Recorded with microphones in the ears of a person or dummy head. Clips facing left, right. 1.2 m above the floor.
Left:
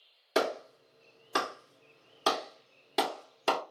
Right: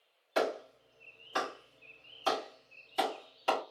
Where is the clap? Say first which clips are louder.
Left 2 dB; 70° left (ahead or behind), 1.8 m.